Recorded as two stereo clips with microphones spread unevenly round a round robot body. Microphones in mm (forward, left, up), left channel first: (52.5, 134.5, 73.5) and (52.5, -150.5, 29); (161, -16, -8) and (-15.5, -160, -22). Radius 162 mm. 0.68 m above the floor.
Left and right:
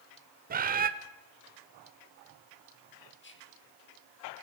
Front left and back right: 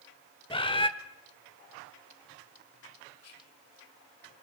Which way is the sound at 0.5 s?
30° right.